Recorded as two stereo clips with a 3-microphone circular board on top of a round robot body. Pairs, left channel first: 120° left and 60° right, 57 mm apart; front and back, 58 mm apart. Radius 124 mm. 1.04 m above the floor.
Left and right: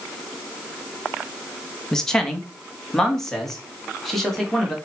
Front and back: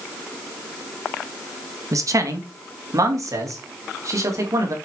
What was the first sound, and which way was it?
A man speaking, 160° right.